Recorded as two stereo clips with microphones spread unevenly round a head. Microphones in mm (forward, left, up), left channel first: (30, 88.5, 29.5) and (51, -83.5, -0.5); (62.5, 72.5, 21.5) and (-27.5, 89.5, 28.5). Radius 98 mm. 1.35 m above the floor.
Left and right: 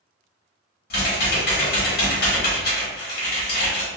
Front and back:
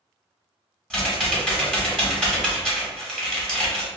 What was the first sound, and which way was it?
Typing on a keyboard, 70° left.